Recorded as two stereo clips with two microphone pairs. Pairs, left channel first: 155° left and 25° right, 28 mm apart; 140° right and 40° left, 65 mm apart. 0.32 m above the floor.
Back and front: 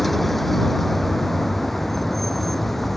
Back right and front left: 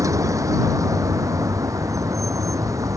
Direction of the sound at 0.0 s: 70° left.